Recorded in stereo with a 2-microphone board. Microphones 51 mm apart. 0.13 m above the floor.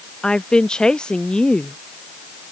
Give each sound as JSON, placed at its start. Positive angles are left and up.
{"t": 0.2, "sound": "a woman speaking", "side_deg": 15}